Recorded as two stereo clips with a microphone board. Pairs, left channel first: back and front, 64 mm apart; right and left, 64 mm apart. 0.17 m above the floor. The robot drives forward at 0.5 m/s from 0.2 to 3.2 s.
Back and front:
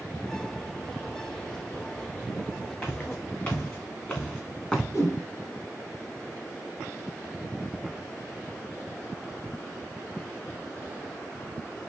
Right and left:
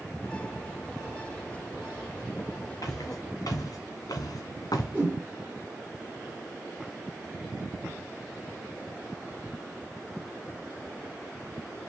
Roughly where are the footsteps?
Behind right.